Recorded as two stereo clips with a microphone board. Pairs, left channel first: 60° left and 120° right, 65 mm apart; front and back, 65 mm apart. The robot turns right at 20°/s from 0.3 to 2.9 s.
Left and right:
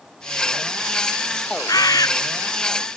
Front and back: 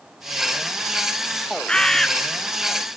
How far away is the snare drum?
I don't hear a snare drum.